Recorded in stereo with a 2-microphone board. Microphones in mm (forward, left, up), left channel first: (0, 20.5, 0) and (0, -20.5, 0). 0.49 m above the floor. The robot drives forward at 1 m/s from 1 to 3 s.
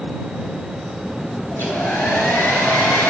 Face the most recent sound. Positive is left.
turn(degrees=60)  # may be behind; listen again after turning